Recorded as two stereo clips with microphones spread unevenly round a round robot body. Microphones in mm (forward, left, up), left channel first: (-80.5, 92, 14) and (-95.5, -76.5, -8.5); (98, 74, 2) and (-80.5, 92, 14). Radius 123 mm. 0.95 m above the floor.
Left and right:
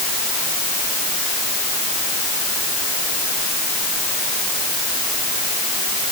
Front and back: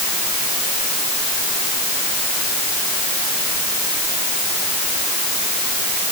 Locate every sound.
Only background noise.